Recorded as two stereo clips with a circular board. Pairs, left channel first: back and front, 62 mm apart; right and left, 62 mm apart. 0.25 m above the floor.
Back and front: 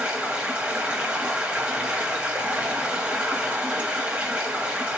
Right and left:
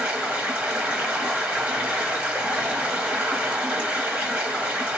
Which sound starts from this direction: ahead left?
Running water, at 0.0 s.